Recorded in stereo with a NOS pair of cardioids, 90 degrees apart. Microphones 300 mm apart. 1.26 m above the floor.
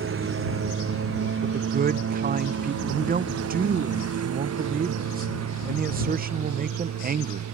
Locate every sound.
0.0 s a lawn mower: 45° right; by 7.5 s 60° right
1.4 s a man speaking: 30° right